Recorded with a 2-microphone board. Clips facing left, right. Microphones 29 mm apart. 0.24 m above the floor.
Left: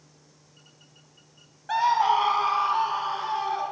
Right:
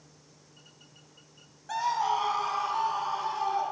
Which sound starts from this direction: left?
A scream, at 1.7 s.